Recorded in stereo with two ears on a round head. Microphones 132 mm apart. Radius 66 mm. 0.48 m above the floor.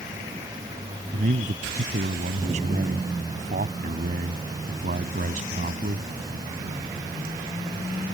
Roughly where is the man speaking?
Right.